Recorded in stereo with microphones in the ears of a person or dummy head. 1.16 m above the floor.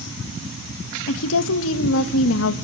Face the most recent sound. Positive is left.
turn(degrees=75)  # may be behind; listen again after turning